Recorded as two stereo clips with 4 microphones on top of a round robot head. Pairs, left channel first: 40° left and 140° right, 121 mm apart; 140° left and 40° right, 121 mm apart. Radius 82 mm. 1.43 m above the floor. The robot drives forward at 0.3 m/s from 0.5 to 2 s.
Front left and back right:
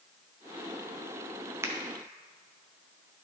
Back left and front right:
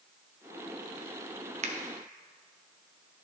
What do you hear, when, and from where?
1.6 s a finger snap: 70° right, 0.8 m